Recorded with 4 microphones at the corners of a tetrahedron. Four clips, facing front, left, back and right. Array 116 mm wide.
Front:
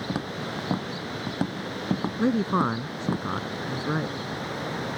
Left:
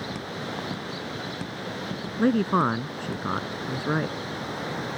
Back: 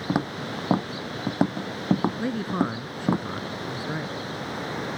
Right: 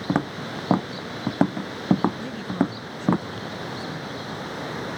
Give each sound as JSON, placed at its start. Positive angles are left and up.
{"t": 0.1, "sound": "footsteps", "azimuth_deg": -120}
{"t": 2.2, "sound": "a man speaking", "azimuth_deg": 65}